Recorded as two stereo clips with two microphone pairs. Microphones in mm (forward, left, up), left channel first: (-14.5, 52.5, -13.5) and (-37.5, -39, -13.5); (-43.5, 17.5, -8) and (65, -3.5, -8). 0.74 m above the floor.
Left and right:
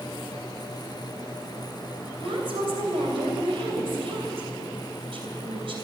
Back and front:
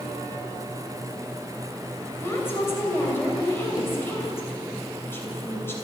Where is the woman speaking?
120° right, 3 m.